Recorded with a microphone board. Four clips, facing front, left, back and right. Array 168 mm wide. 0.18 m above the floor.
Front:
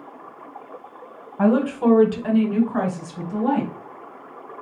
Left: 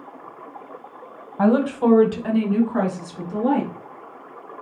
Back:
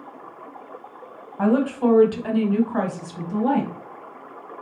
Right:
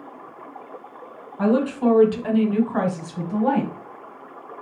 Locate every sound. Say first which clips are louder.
1.4 s a woman speaking: left 2 dB, front 1 dB; 75° left, 1.3 m; by 3.7 s 100° right, 1.5 m